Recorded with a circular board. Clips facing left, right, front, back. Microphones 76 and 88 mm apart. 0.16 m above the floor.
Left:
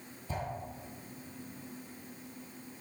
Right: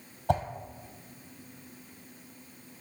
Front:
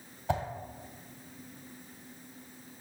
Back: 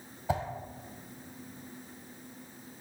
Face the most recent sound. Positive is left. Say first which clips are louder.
# right 12 dB, even
turn(degrees=-100)